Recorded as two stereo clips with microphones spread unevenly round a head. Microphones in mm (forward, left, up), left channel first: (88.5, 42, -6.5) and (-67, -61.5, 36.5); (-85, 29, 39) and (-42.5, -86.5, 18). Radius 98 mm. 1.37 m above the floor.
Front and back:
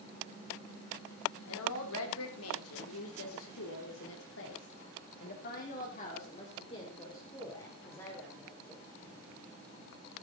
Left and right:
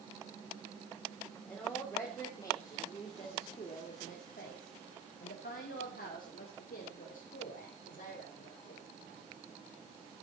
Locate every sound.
1.4 s a woman speaking: 25° left, 3.5 m; by 8.8 s 115° left, 4 m